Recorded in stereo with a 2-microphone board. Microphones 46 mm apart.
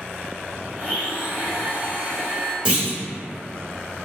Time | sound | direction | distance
0.8 | a blender | 45° right (ahead or behind) | 0.9 m
2.6 | a clunk | 20° right (ahead or behind) | 1.4 m